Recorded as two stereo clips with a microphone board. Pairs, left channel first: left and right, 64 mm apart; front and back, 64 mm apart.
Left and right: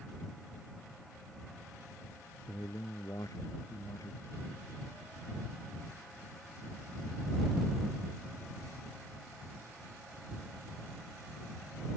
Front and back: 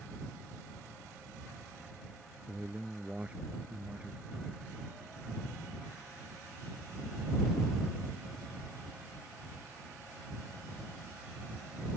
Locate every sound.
2.5 s a man speaking: 110° left